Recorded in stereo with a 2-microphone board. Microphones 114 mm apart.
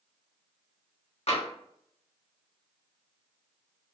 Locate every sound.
1.3 s tapping: 70° left (ahead or behind), 0.9 m